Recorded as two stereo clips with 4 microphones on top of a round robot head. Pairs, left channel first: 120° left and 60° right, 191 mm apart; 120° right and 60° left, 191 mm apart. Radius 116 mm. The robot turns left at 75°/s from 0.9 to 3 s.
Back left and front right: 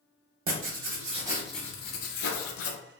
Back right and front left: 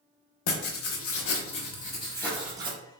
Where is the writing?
100° right, 0.6 m; by 2.8 s 115° left, 0.6 m.